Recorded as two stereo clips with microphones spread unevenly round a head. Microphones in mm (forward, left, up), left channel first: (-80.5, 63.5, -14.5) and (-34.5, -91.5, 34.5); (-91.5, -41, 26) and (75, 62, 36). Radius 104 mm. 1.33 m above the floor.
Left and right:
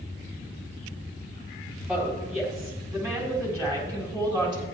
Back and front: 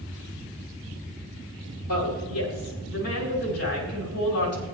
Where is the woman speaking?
155° right, 5.5 m; by 4.7 s 140° right, 5 m.